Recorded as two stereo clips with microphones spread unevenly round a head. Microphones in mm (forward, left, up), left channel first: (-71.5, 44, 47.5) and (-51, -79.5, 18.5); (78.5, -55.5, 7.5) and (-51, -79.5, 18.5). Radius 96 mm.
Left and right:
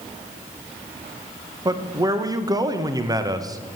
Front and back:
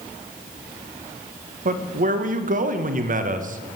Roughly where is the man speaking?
Behind right.